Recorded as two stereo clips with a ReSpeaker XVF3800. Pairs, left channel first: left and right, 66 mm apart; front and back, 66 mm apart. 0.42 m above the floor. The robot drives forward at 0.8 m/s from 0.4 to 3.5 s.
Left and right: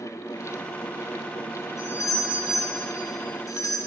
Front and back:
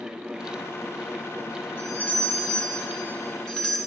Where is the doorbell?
60° left, 3.5 m; by 3.8 s 85° left, 3 m.